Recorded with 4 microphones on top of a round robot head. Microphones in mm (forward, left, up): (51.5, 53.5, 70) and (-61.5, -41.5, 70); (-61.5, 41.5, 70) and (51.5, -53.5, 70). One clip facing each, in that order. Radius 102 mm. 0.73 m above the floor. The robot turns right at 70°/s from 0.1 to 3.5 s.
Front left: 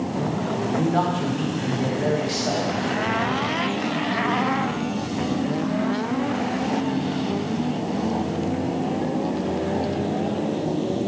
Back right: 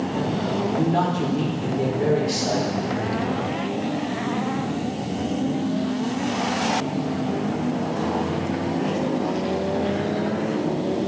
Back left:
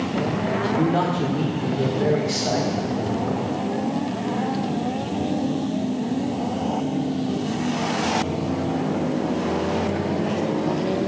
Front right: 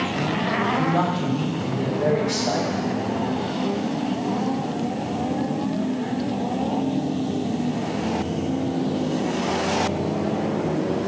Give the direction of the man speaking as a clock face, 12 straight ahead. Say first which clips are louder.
Even, back left 1 dB; 7 o'clock.